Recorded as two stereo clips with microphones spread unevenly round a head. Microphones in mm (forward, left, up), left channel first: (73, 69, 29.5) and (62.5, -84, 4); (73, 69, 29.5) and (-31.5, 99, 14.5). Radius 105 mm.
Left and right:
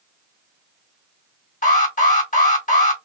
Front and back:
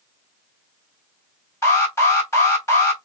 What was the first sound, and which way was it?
An alarm, 50° left.